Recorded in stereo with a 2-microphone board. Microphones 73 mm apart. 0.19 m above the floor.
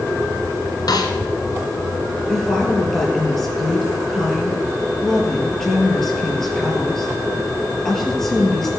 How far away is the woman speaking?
About 5 m.